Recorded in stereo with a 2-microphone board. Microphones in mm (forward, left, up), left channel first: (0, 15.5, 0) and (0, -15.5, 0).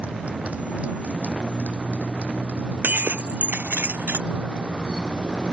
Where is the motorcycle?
50° right (ahead or behind); by 5.5 s 25° right (ahead or behind).